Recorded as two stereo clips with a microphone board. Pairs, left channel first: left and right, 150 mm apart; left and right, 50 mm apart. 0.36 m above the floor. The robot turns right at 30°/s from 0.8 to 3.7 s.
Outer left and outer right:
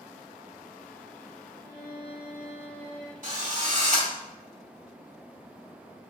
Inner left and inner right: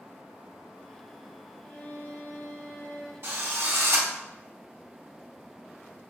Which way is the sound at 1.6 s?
30° left.